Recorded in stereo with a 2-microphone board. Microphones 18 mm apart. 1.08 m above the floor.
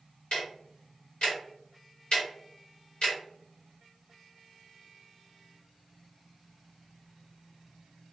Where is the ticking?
65° left (ahead or behind), 1.1 m.